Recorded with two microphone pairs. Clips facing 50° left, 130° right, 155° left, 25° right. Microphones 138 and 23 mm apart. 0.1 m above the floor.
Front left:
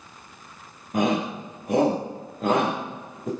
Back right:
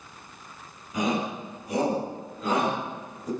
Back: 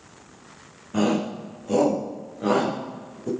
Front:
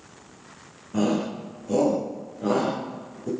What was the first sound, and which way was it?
A shout, 90° left.